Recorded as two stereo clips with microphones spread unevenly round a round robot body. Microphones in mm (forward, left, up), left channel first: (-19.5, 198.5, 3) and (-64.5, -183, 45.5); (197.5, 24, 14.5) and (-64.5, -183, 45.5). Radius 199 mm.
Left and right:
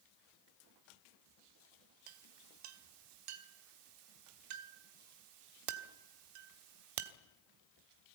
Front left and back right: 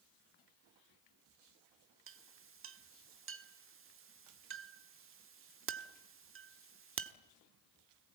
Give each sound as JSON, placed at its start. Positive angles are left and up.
{"t": 2.1, "sound": "a clink", "azimuth_deg": -85, "distance_m": 1.5}